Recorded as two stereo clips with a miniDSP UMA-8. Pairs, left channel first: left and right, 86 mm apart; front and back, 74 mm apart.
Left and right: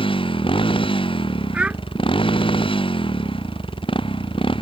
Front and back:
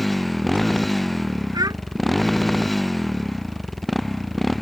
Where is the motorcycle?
90° left.